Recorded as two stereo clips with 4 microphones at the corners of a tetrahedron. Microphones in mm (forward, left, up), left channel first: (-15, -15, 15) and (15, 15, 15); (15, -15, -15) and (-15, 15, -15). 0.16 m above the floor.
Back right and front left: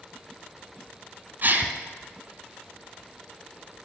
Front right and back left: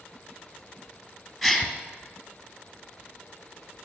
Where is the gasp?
50° left, 1.6 m.